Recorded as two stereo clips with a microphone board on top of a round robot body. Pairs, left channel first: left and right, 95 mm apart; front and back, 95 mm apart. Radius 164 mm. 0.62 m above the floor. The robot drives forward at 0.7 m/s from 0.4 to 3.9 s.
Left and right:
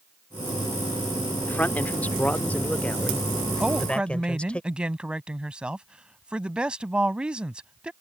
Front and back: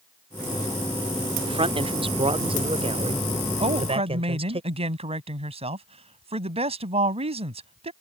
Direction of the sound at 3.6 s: 170° right.